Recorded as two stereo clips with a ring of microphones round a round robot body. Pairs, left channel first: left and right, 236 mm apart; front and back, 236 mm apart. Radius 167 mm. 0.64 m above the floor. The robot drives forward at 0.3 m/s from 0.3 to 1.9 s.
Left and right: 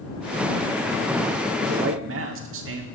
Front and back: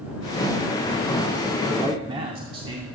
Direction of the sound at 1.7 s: 105° right.